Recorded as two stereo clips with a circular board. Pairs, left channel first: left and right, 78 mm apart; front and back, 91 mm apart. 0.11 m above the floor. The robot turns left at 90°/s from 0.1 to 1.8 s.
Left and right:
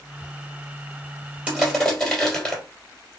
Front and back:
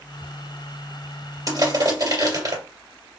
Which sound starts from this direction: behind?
Crushing, at 1.5 s.